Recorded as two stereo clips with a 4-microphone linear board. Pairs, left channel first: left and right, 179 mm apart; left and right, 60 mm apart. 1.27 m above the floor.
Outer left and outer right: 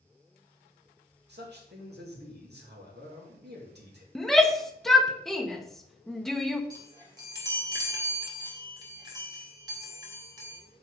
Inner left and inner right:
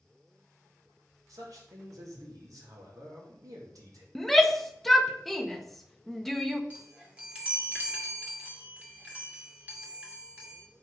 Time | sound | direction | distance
1.3 | a man speaking | 70° right (ahead or behind) | 2.5 m
4.2 | a shout | centre (ahead or behind) | 0.8 m
6.7 | a chime | 20° right (ahead or behind) | 1.7 m